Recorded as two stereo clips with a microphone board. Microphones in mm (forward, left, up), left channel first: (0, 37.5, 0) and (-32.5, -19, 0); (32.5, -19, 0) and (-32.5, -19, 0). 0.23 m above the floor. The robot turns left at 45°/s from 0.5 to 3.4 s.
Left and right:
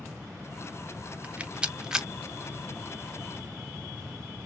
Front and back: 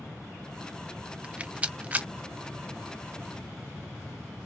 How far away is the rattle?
About 0.5 m.